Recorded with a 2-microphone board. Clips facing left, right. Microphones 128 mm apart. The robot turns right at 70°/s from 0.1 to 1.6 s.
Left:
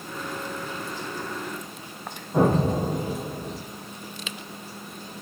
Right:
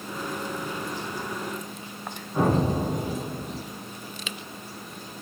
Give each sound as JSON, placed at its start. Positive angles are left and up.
{"t": 2.3, "sound": "an explosion", "side_deg": 50, "distance_m": 2.0}